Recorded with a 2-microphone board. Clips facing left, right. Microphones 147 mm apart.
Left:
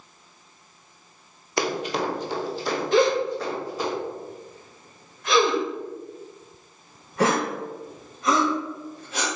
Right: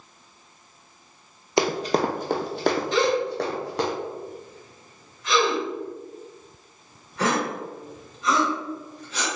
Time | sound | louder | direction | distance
1.6 | running footsteps | right 4 dB | 20° right (ahead or behind) | 0.7 m
2.9 | a gasp | left 2 dB | 60° left (ahead or behind) | 1.9 m